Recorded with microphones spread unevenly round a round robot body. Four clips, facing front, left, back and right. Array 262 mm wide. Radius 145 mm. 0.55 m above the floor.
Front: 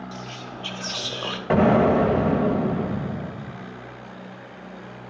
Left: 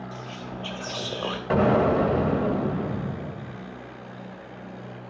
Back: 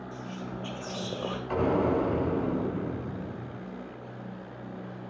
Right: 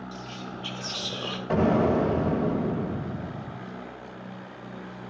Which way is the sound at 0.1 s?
100° left.